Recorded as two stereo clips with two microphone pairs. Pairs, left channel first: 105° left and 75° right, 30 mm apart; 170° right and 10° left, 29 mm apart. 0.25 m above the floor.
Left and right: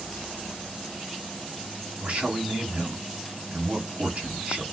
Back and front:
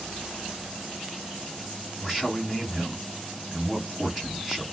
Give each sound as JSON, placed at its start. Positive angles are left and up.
{"t": 2.0, "sound": "a man speaking", "azimuth_deg": -80, "distance_m": 1.6}